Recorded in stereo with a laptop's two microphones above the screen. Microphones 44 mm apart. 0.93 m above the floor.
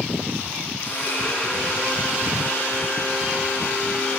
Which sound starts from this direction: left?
A blender, at 0.8 s.